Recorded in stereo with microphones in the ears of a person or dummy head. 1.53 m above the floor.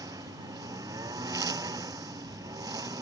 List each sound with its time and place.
0.0 s a lawn mower: 20° right (ahead or behind)